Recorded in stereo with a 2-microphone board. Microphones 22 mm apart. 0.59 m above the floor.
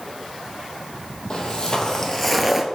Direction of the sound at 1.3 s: 40° left (ahead or behind).